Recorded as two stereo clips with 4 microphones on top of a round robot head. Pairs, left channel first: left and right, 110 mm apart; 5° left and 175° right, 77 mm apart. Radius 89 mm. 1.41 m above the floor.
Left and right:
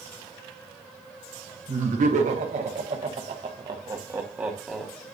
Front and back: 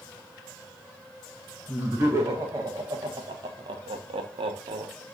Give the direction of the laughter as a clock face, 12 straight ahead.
3 o'clock.